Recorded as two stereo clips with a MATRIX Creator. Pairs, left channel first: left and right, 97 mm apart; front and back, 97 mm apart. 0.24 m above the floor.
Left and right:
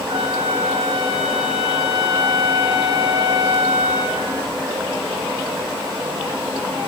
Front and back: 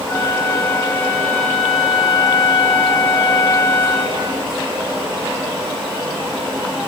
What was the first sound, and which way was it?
A flute, 65° right.